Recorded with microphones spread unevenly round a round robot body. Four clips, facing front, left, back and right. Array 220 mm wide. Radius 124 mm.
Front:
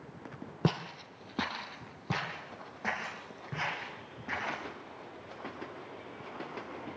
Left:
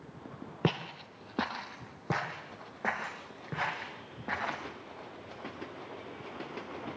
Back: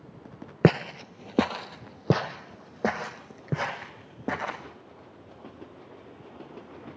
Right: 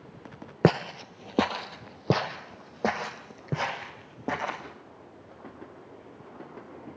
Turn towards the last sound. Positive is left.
turn(degrees=-155)